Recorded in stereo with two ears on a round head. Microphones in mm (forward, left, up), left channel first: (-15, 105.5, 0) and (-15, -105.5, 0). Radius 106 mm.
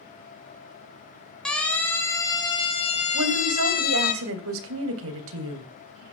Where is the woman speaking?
65° right (ahead or behind), 3 m.